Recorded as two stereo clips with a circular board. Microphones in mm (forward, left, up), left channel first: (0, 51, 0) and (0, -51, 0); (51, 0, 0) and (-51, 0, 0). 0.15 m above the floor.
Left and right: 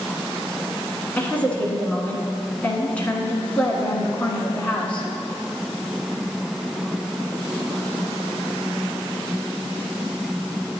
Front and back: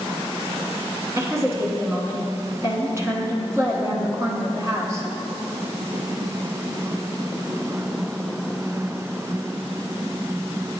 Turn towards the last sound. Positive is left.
turn(degrees=155)